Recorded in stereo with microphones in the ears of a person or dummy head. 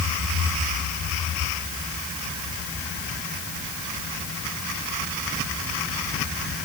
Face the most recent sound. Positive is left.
No sound to turn to.